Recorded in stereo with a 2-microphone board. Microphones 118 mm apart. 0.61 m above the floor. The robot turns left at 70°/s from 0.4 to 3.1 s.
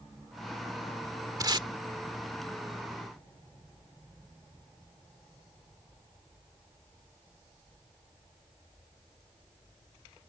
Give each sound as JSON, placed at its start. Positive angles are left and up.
{"t": 1.4, "sound": "tape being pulled", "side_deg": -30}